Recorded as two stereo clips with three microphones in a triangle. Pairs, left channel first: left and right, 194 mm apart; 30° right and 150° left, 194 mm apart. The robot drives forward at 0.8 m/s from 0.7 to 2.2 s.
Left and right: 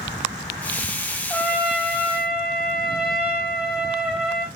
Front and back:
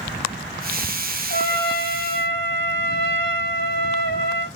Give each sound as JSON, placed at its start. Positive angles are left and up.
{"t": 1.3, "sound": "a trumpet", "azimuth_deg": 0, "distance_m": 4.0}